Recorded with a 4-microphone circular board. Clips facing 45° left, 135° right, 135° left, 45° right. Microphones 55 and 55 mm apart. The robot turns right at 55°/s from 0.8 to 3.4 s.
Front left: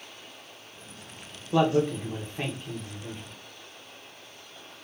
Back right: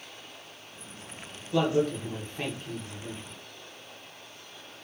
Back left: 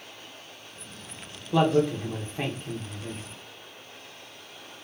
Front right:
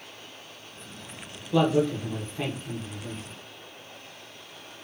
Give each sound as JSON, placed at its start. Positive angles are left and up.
{"t": 1.5, "sound": "a man speaking", "azimuth_deg": 65, "distance_m": 0.8}